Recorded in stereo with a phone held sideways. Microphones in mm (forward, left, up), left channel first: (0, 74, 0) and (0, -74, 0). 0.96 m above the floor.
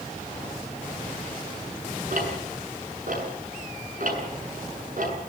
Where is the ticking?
65° right (ahead or behind), 7 m.